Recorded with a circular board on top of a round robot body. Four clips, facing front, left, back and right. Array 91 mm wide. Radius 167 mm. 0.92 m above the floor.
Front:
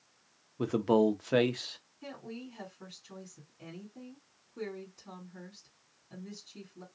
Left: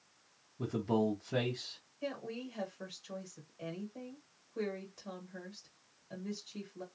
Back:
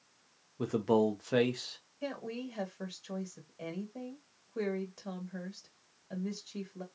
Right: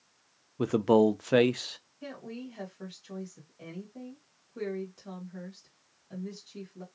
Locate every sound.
0.6 s a man speaking: 75° right, 0.5 m
2.0 s a woman speaking: straight behind, 1.5 m